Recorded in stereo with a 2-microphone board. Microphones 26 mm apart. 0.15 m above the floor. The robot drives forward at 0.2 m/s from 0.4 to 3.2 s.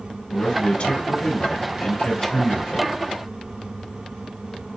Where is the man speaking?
50° left (ahead or behind), 1.8 m; by 3.0 s 45° left (ahead or behind), 2.0 m.